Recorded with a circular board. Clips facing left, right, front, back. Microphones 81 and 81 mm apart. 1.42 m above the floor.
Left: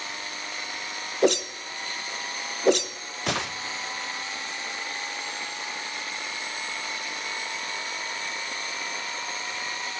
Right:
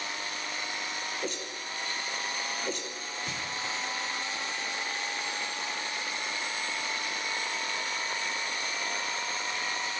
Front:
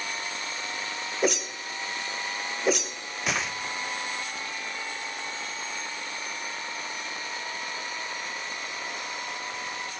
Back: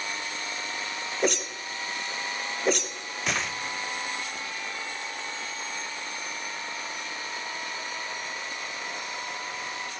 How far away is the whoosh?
About 1.0 m.